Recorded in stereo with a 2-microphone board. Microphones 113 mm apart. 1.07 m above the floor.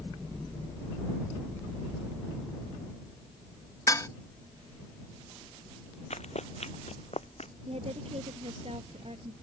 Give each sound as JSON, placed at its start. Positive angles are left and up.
{"t": 3.9, "sound": "dishes clattering", "side_deg": 30}
{"t": 6.1, "sound": "running footsteps", "side_deg": 75}
{"t": 7.7, "sound": "a woman speaking", "side_deg": -60}